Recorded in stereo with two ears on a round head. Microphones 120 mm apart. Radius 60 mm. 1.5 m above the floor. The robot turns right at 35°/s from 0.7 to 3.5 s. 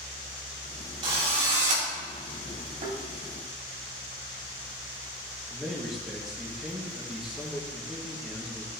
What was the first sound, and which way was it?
A drill, 40° right (ahead or behind).